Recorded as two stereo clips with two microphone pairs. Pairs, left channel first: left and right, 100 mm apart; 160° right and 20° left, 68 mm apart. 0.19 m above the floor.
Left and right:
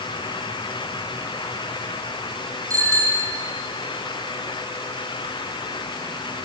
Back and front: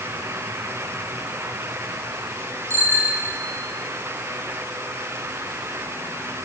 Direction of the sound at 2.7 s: 30° right.